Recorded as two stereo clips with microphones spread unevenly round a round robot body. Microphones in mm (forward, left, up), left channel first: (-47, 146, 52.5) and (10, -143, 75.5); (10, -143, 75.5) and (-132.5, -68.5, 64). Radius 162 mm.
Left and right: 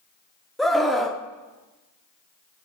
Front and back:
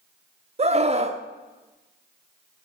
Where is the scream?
175° right, 1.3 m.